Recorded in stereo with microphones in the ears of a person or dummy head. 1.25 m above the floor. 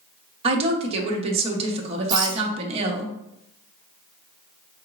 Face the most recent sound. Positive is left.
turn(degrees=-20)  # may be behind; listen again after turning